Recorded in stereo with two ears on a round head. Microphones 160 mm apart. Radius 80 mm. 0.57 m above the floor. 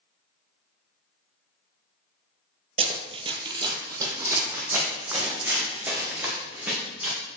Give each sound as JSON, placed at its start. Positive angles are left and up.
{"t": 2.8, "sound": "running footsteps", "side_deg": -35, "distance_m": 0.6}